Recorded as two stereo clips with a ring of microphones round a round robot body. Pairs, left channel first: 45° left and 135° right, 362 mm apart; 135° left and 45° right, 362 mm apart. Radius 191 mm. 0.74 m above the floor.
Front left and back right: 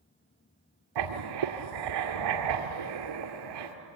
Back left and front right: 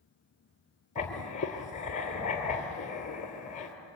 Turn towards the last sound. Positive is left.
turn(degrees=-155)